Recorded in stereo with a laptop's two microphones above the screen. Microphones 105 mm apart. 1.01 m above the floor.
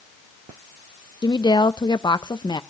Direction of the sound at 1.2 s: 45° left (ahead or behind).